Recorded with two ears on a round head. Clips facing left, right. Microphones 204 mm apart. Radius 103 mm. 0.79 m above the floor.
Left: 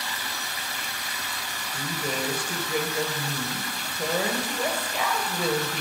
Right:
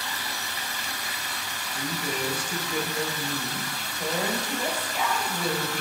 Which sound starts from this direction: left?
A woman speaking, at 1.7 s.